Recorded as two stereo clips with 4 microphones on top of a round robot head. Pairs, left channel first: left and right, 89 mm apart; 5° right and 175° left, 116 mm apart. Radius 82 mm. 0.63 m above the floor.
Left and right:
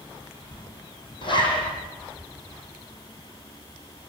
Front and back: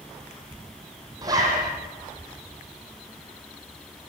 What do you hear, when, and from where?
1.2 s a zipper: 115° left, 7.5 m